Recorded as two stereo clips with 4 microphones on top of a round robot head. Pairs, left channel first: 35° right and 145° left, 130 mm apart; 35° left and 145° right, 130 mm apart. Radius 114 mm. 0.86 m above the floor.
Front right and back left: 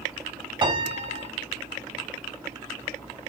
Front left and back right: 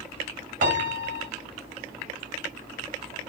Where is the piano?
165° right, 3.5 m.